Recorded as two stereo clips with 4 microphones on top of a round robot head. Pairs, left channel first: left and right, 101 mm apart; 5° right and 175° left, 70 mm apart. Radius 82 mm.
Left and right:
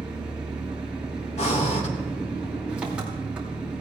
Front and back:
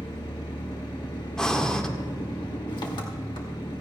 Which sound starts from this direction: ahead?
An engine running, at 0.0 s.